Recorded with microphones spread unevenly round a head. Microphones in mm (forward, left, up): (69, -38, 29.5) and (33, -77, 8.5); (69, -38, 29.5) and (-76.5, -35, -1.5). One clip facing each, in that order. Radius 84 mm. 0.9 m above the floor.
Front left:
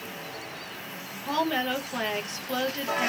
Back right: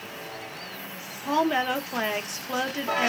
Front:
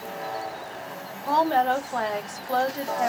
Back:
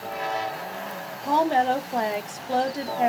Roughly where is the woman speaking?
Behind right.